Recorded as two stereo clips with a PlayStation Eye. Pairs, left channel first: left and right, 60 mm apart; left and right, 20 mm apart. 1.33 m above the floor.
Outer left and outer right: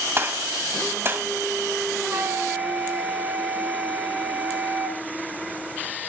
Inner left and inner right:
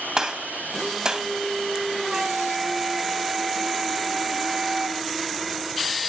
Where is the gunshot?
40° right (ahead or behind), 3 m.